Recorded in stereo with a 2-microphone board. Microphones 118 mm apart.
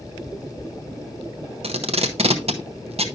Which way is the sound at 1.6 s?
60° right (ahead or behind).